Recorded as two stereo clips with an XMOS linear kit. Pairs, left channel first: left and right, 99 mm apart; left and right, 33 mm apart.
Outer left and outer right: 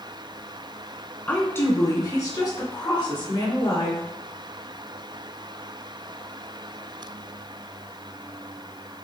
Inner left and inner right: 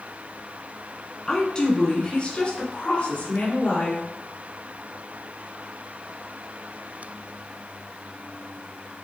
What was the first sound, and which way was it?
A woman speaking, 20° left (ahead or behind).